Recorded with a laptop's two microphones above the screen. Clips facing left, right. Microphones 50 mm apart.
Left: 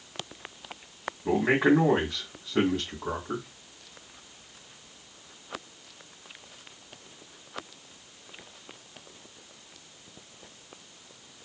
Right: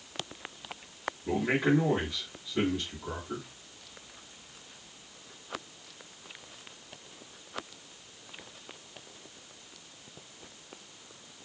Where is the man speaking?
80° left, 2 m.